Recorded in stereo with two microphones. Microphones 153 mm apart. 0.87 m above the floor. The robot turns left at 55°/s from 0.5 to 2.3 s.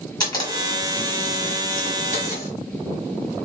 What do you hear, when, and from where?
0.2 s a camera shutter: 150° left, 1.3 m; by 2.5 s 50° left, 1.3 m